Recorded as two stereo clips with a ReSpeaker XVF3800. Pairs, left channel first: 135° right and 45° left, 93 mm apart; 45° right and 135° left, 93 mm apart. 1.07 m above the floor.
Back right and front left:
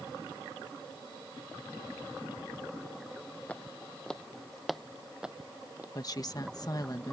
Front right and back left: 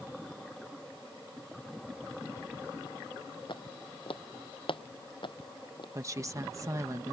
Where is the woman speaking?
175° right.